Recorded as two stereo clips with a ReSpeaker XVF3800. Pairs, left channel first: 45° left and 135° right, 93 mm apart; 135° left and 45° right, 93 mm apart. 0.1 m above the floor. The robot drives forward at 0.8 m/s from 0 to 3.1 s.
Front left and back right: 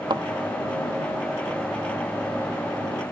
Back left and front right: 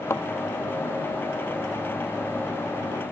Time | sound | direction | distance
0.1 | a thud | 170° right | ?